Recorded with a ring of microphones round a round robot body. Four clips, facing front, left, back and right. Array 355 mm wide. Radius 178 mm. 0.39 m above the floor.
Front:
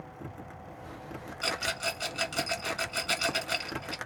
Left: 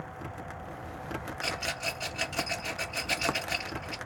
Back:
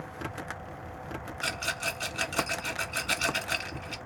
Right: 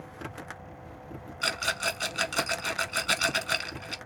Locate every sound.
1.4 s a rattle: 90° right, 1.5 m